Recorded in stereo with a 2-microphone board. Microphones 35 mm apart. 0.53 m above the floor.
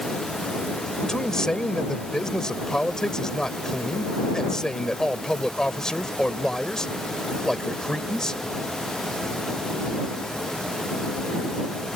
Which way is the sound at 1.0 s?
20° left (ahead or behind).